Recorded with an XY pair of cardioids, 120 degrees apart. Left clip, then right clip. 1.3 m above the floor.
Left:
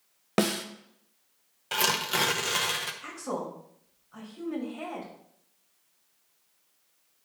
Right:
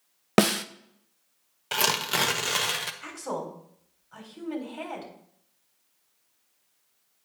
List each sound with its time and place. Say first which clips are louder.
0.4 s a snare drum: right 5 dB; 40° right, 0.5 m
1.7 s tearing paper: right 1 dB; 20° right, 0.7 m
3.0 s a woman speaking: right 1 dB; 70° right, 3.5 m